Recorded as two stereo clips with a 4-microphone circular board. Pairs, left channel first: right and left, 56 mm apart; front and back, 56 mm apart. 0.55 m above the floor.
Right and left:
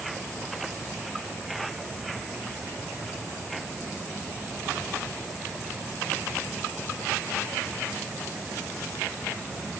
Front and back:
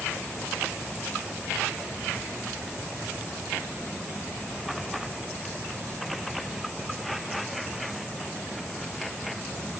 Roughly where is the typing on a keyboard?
No typing on a keyboard in this recording.